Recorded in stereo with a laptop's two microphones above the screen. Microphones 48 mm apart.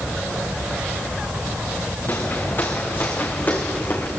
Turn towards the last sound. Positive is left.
turn(degrees=40)  # may be behind; listen again after turning